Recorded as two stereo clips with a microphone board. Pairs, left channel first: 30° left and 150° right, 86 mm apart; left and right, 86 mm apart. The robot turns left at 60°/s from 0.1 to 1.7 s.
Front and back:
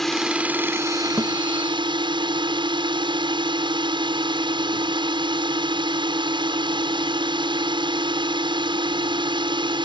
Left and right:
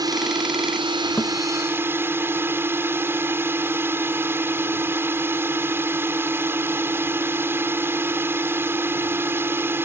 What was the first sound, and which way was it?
A drone, 55° right.